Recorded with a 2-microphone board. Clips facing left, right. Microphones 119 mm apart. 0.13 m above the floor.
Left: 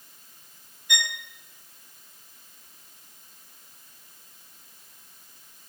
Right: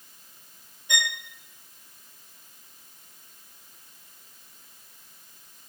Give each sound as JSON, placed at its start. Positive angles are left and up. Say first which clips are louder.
{"t": 0.9, "sound": "a violin", "louder": "right 1 dB", "side_deg": -20, "distance_m": 0.8}